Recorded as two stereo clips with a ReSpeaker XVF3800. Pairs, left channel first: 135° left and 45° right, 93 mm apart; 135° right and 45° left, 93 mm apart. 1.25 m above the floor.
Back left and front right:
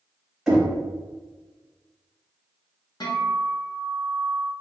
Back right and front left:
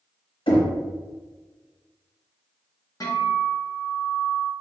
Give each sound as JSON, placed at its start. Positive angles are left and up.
{"t": 0.5, "sound": "knocking", "azimuth_deg": -130, "distance_m": 1.2}
{"t": 3.0, "sound": "a guitar", "azimuth_deg": 175, "distance_m": 0.9}